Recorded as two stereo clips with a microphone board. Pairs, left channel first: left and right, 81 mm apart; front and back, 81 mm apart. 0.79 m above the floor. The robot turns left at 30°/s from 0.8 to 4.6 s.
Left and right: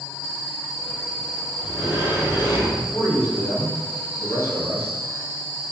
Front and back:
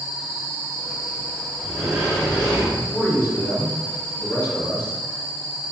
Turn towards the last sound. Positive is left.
turn(degrees=55)